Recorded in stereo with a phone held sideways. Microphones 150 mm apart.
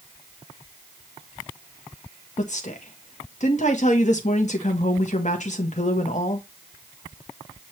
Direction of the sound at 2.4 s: 55° left (ahead or behind).